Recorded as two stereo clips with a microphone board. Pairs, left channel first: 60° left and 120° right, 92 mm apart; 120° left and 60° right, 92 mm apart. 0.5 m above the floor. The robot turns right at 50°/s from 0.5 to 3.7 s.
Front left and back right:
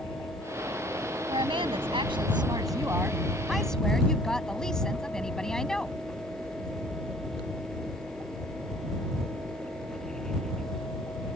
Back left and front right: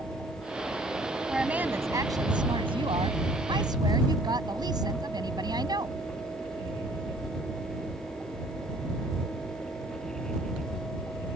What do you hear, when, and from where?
1.3 s a woman speaking: 145° right; by 6.0 s 25° right